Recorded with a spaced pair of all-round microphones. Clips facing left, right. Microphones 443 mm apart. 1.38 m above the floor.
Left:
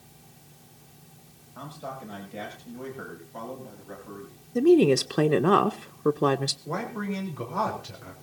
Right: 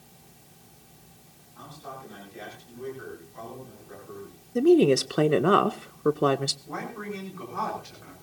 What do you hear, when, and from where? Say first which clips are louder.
1.6 s a man speaking: left 4 dB; 80° left, 6.5 m; by 4.4 s 75° left (ahead or behind), 8.5 m
4.5 s a woman speaking: even; 5° left (ahead or behind), 0.7 m
6.7 s a man speaking: left 4 dB; 85° left, 4 m